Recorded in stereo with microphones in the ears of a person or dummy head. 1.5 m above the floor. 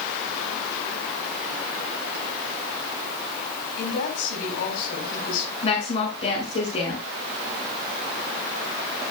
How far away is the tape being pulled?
I don't hear tape being pulled.